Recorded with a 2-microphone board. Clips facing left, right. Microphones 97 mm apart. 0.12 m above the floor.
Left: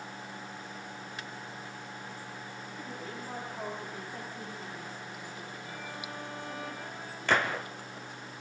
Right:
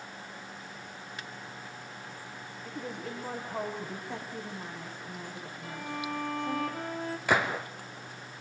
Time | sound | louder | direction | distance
2.6 | a woman speaking | right 6 dB | 75° right (ahead or behind) | 8.5 m
4.1 | a woman speaking | right 2 dB | 65° right (ahead or behind) | 7.5 m
5.6 | a violin | right 9 dB | 70° right (ahead or behind) | 4 m
7.3 | a gunshot | even | 5° right (ahead or behind) | 2 m